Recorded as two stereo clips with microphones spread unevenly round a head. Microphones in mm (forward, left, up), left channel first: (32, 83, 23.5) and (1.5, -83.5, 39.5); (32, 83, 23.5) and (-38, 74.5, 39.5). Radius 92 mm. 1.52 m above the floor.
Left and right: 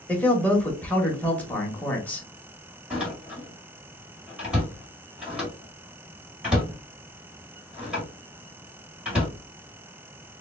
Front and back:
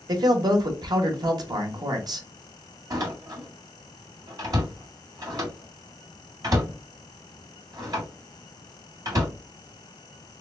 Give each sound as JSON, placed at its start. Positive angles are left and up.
{"t": 0.1, "sound": "a man speaking", "azimuth_deg": 160, "distance_m": 1.0}
{"t": 2.9, "sound": "a door slam", "azimuth_deg": 180, "distance_m": 1.7}